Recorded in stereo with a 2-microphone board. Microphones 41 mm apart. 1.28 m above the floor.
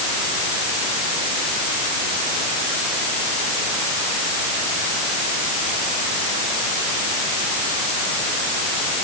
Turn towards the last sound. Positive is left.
No sound to turn to.